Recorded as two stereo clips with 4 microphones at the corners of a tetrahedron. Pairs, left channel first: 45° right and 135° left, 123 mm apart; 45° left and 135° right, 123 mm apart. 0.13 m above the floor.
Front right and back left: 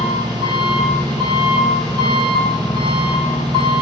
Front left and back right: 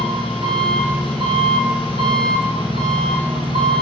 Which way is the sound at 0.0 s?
90° left.